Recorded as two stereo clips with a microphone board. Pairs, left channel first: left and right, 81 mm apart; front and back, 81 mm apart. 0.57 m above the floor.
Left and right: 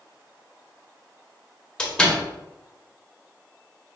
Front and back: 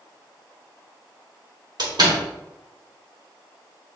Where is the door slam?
170° left, 1.1 m.